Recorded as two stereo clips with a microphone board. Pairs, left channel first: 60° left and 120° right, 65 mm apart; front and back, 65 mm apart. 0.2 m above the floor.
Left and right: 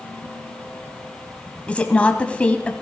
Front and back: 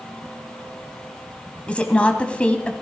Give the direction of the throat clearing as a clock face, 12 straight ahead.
No throat clearing in this recording.